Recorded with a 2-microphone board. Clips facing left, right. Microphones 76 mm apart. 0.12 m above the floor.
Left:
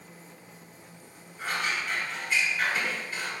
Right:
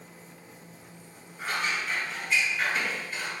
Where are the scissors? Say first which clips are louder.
Even; 5° right (ahead or behind), 1.5 m.